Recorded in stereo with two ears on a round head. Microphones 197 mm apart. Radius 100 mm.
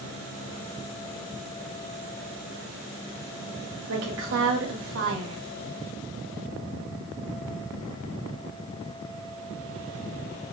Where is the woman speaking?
65° right (ahead or behind), 0.9 m.